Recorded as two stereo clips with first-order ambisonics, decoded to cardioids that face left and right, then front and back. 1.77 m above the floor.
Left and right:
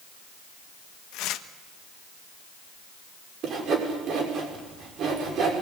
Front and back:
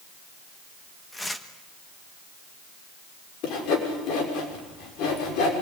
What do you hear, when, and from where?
1.1 s tearing paper: 80° left, 1.3 m
3.4 s sawing: 35° right, 6 m